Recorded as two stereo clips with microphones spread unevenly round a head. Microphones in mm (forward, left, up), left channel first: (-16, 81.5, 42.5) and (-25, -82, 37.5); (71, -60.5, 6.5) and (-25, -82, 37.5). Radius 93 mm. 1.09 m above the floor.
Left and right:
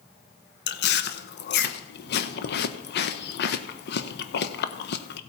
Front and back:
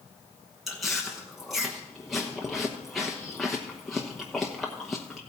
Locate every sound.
0.7 s chewing: 95° left, 0.9 m